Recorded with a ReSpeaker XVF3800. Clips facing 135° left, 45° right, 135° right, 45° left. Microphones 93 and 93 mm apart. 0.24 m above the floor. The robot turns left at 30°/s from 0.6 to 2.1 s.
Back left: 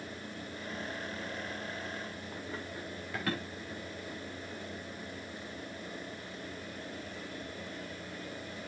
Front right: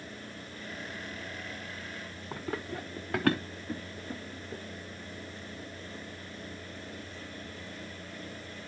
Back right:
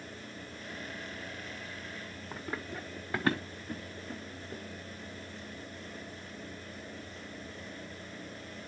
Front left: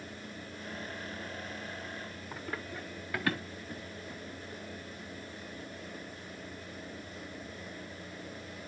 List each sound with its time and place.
2.3 s running footsteps: 55° right, 1.4 m; by 4.6 s 100° right, 1.8 m